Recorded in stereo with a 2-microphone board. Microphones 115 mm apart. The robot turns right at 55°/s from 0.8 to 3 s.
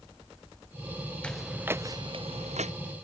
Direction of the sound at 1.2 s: 10° left (ahead or behind).